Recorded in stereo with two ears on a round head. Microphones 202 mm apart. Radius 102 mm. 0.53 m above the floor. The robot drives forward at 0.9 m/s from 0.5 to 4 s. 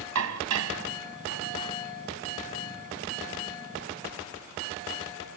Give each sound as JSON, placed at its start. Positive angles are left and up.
{"t": 0.1, "sound": "dishes clattering", "side_deg": -75, "distance_m": 3.0}